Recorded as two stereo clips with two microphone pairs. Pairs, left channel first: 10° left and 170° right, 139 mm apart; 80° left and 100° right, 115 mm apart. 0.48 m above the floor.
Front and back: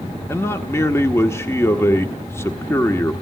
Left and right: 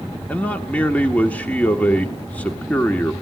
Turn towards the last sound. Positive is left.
turn(degrees=30)